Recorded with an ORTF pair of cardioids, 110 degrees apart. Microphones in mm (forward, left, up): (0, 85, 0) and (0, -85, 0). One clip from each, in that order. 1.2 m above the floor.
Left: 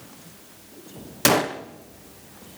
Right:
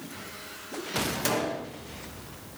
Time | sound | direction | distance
1.2 | a gunshot | 60° left | 1.4 m